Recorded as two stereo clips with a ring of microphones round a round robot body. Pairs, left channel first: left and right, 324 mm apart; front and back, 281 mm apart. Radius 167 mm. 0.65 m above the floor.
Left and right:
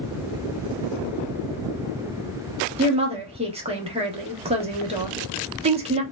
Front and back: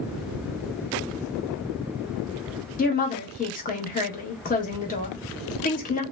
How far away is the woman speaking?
About 0.7 m.